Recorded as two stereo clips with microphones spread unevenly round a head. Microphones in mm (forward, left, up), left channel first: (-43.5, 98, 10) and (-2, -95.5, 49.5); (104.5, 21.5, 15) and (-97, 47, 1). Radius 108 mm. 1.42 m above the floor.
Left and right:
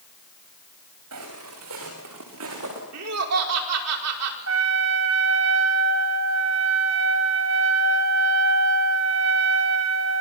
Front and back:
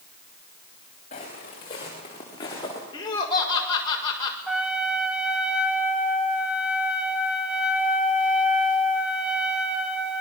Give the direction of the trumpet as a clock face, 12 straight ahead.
3 o'clock.